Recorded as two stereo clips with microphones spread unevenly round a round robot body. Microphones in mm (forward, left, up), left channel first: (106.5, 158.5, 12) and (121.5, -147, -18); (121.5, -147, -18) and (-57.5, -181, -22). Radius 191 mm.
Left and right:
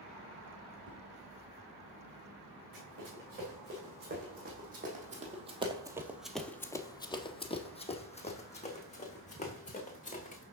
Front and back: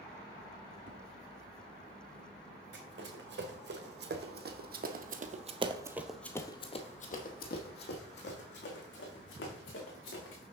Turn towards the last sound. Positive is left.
turn(degrees=25)